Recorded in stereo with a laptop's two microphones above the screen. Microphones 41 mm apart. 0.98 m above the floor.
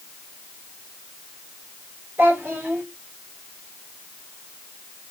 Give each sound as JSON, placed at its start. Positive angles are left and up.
{"t": 2.2, "sound": "a child speaking", "side_deg": -90, "distance_m": 2.5}